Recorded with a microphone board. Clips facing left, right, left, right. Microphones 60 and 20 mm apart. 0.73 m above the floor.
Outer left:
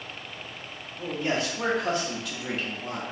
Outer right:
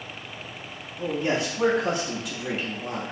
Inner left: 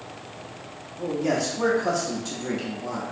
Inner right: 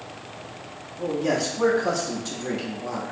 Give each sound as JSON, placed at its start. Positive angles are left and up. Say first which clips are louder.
{"t": 1.0, "sound": "a man speaking", "louder": "outer right 3 dB, inner right 1 dB", "side_deg": -5, "distance_m": 0.6}